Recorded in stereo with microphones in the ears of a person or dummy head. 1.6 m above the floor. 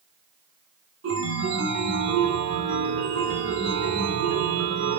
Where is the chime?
65° right (ahead or behind), 3 m.